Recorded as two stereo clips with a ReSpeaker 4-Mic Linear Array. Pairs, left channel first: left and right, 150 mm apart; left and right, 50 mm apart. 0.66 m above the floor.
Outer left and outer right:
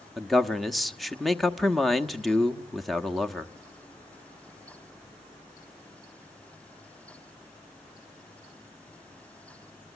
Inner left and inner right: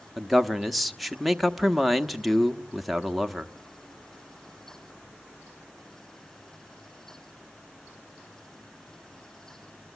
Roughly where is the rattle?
No rattle in this recording.